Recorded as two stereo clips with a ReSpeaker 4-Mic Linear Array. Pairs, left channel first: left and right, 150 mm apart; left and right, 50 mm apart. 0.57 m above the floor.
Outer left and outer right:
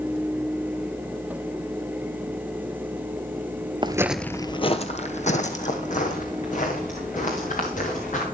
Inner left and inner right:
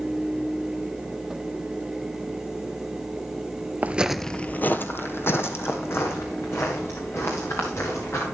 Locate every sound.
3.8 s footsteps: 30° right (ahead or behind), 0.6 m; by 8.2 s 55° left (ahead or behind), 4.5 m